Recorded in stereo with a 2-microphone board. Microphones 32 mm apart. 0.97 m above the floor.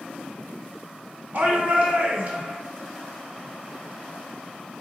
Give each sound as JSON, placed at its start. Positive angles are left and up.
{"t": 1.3, "sound": "a shout", "side_deg": -55, "distance_m": 0.7}